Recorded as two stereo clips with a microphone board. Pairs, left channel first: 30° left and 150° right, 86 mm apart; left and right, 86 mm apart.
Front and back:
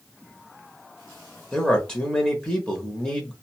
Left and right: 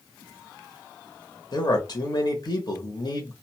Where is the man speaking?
110° left, 0.9 m.